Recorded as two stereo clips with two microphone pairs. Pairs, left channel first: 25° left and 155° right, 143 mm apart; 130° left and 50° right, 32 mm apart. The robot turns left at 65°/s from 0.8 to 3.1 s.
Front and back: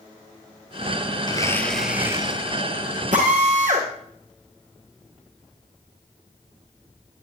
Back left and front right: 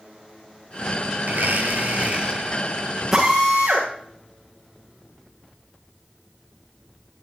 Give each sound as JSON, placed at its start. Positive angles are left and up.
{"t": 1.3, "sound": "a blender", "azimuth_deg": -35, "distance_m": 1.9}
{"t": 3.1, "sound": "a drill", "azimuth_deg": -130, "distance_m": 7.5}